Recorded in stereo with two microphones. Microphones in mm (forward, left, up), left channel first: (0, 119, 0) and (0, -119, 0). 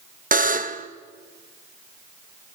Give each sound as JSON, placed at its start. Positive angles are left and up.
{"t": 0.3, "sound": "a buzzer", "side_deg": -35, "distance_m": 0.8}